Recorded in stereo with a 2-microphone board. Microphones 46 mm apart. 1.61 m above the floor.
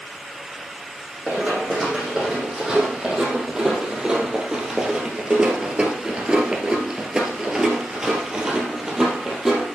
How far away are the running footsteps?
About 4 m.